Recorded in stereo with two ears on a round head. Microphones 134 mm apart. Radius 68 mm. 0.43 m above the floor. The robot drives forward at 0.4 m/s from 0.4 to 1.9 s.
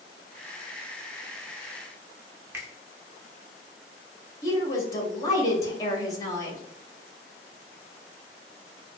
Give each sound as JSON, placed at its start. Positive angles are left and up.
{"t": 2.5, "sound": "a finger snap", "side_deg": -15, "distance_m": 0.6}
{"t": 4.4, "sound": "a woman speaking", "side_deg": 25, "distance_m": 0.7}